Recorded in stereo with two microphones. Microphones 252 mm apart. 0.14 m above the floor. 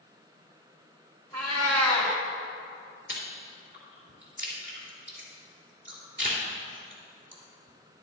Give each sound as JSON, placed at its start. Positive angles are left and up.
{"t": 1.3, "sound": "a cat meowing", "side_deg": -80, "distance_m": 1.9}
{"t": 3.1, "sound": "chewing", "side_deg": -50, "distance_m": 3.0}